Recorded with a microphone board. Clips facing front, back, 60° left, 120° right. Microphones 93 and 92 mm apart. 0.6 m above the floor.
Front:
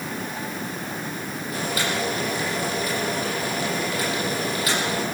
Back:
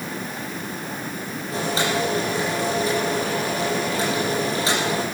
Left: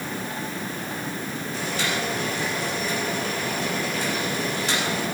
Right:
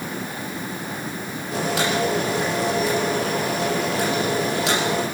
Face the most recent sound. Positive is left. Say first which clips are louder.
# back 4 dB, right 7 dB
turn(degrees=-115)